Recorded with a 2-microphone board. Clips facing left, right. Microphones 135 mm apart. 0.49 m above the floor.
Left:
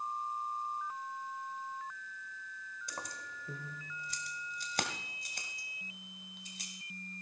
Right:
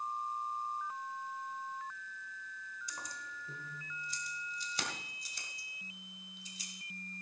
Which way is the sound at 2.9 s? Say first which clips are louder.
Left 4 dB; 65° left (ahead or behind).